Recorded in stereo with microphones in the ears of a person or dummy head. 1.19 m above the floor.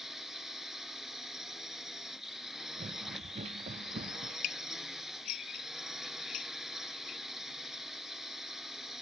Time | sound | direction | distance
0.0 | a drone | centre (ahead or behind) | ?
2.8 | running footsteps | 35° right (ahead or behind) | ?
4.4 | dishes clattering | 50° left (ahead or behind) | ?